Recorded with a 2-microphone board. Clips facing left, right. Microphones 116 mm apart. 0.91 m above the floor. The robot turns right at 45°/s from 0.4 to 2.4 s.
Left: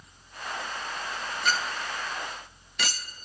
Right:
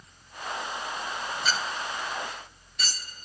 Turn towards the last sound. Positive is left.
turn(degrees=75)  # may be behind; listen again after turning